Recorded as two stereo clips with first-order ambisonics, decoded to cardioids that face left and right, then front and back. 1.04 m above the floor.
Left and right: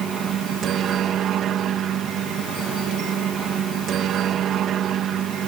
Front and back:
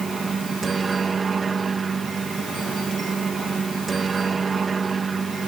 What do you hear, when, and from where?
0.0 s a helicopter: 120° right